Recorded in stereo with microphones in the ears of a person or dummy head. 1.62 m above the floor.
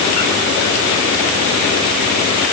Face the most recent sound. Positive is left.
No sound to turn to.